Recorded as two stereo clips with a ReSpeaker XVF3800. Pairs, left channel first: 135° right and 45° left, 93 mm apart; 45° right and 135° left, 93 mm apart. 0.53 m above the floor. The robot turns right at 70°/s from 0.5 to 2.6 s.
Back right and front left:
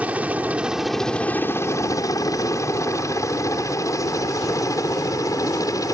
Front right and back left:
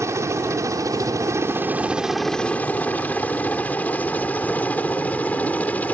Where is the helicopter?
110° left; by 6.0 s 110° right.